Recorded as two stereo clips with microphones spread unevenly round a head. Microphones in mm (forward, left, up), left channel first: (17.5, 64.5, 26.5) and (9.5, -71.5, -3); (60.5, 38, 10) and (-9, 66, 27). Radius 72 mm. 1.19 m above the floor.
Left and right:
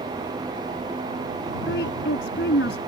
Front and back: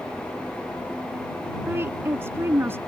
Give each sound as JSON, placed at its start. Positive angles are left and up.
{"t": 1.7, "sound": "a woman speaking", "azimuth_deg": 100}